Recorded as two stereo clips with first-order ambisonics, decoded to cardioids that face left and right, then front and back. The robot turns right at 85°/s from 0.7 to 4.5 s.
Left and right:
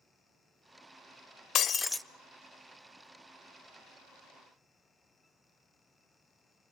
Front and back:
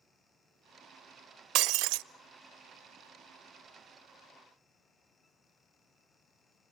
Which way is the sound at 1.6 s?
145° left.